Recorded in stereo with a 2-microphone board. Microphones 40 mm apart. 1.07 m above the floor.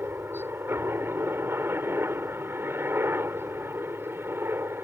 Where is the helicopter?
70° right (ahead or behind).